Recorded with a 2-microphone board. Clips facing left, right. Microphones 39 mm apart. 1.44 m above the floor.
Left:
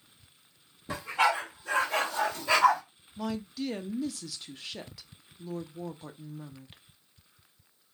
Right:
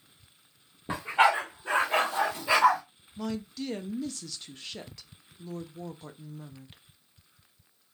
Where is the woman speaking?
5° left (ahead or behind), 0.5 m.